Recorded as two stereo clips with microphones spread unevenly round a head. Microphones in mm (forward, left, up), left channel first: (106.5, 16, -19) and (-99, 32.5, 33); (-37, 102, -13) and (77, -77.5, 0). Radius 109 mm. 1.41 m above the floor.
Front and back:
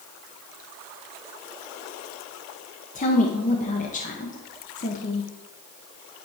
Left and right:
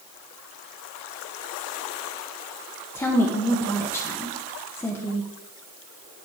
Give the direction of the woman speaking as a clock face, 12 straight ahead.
11 o'clock.